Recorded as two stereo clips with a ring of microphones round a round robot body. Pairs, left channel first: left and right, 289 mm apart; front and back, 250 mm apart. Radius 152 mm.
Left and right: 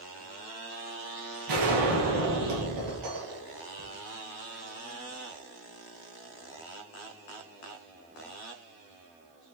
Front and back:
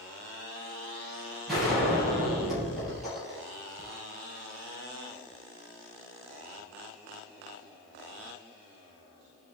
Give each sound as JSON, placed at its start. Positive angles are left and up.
{"t": 1.5, "sound": "a gunshot", "azimuth_deg": -90, "distance_m": 4.5}